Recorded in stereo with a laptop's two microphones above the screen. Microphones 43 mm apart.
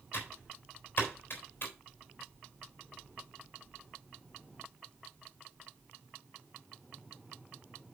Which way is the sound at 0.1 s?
55° left (ahead or behind).